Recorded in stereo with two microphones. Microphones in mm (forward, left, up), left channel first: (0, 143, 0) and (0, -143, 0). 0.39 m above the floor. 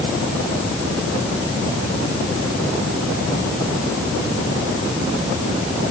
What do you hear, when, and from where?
Only background noise.